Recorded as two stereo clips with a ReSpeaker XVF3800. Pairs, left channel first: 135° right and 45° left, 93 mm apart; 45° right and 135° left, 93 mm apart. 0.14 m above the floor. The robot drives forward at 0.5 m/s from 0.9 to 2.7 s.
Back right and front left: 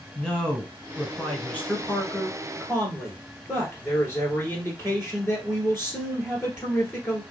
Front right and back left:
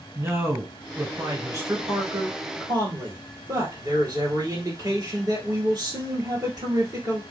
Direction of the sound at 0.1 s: 150° left.